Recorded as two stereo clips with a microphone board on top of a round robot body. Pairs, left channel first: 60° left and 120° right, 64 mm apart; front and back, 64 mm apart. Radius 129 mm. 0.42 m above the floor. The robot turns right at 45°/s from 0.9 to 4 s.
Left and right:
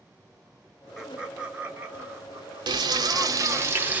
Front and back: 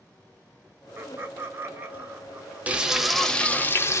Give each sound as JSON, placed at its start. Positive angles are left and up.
{"t": 1.0, "sound": "laughter", "azimuth_deg": 165, "distance_m": 1.3}
{"t": 2.7, "sound": "frying", "azimuth_deg": -110, "distance_m": 0.6}